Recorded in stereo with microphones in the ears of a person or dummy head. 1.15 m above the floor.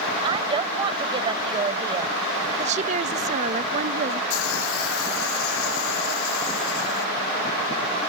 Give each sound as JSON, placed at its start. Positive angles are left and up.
{"t": 0.2, "sound": "a woman speaking", "side_deg": -30}
{"t": 2.6, "sound": "a woman speaking", "side_deg": -40}
{"t": 4.3, "sound": "a hiss", "side_deg": 80}